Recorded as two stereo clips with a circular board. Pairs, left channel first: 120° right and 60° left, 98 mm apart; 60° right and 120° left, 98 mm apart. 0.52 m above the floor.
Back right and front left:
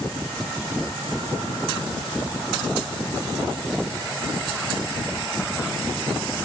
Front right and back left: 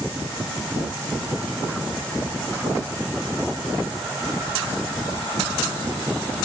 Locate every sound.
Only background noise.